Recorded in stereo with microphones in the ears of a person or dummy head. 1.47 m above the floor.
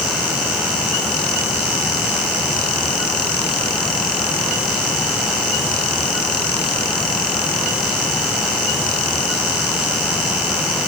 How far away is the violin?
I don't hear a violin.